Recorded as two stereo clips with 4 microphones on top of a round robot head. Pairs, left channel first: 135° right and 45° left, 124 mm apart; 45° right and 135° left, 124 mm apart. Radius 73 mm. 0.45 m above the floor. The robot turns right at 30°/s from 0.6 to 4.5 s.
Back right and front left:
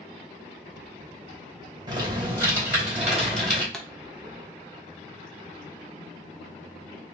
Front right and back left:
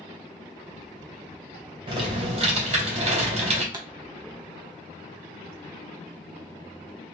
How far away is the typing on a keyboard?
About 2 m.